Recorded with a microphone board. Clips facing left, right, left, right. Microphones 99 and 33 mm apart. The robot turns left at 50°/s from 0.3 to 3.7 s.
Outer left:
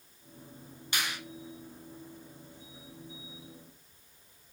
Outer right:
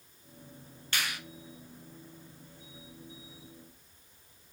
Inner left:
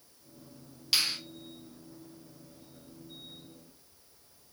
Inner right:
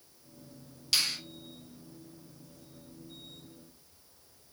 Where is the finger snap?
15° left (ahead or behind), 1.0 m; by 1.2 s 30° left (ahead or behind), 1.0 m.